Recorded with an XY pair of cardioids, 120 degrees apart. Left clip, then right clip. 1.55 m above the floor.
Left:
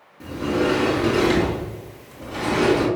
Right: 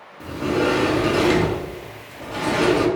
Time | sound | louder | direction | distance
0.2 | a sliding door | right 1 dB | 10° right | 1.0 m